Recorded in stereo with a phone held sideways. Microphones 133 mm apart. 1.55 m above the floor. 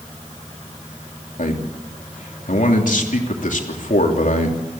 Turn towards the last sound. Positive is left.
turn(degrees=75)  # may be behind; listen again after turning